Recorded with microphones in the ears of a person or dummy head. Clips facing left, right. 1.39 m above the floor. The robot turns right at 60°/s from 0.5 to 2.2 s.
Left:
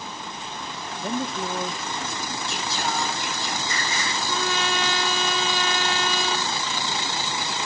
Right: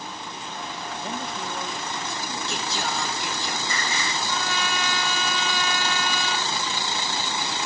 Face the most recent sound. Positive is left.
turn(degrees=20)  # may be behind; listen again after turning